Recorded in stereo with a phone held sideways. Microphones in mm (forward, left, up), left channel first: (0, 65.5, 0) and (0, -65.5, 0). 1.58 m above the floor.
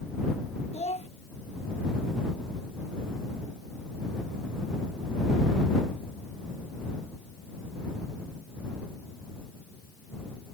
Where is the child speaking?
55° left (ahead or behind).